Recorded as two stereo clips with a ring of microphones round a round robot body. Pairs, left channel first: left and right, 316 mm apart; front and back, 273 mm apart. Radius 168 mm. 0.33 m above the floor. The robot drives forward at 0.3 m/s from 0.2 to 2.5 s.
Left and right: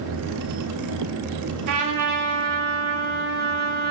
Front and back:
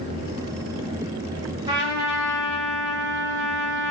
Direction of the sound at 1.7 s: 105° right.